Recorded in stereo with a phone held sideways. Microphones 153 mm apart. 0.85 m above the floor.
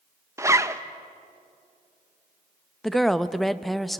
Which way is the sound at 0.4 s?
20° right (ahead or behind).